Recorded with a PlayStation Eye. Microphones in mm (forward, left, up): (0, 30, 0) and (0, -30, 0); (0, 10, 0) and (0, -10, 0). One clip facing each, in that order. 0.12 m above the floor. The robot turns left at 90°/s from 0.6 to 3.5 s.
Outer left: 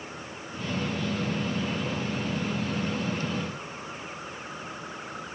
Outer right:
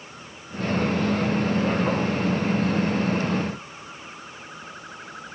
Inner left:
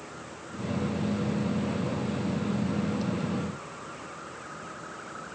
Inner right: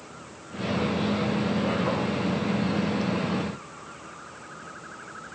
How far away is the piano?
No piano in this recording.